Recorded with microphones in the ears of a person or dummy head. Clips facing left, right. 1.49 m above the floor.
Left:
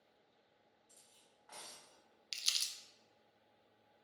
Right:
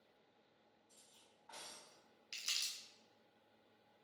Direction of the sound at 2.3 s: 50° left (ahead or behind).